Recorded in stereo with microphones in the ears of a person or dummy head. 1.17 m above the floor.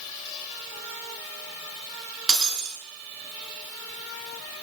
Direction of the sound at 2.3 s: 5° left (ahead or behind).